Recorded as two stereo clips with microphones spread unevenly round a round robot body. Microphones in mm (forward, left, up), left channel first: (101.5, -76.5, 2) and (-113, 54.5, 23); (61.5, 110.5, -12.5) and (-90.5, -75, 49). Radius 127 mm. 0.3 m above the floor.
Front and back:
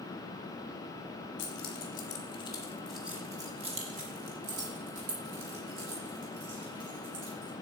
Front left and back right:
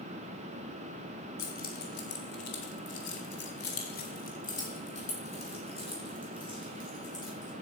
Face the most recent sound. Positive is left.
turn(degrees=120)